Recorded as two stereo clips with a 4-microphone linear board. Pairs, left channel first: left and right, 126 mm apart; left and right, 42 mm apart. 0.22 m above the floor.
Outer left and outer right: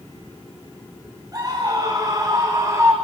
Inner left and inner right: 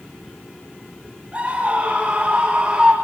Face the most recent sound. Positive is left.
turn(degrees=-25)  # may be behind; listen again after turning